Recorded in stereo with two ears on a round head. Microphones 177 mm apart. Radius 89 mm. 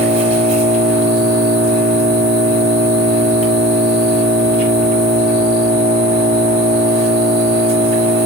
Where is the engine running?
35° right (ahead or behind), 1.4 m.